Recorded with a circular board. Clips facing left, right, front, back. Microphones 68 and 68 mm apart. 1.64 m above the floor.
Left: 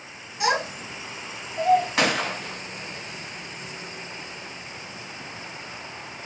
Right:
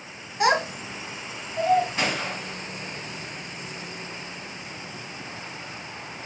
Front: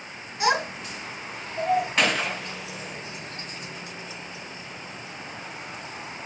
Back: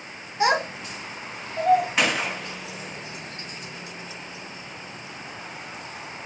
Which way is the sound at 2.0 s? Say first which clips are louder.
Left 4 dB, even; 95° left.